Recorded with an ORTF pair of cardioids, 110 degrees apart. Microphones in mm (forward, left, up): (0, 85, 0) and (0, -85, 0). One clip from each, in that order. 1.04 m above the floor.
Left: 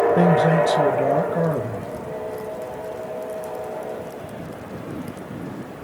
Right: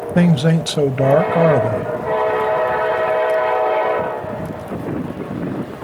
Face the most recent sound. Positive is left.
turn(degrees=-60)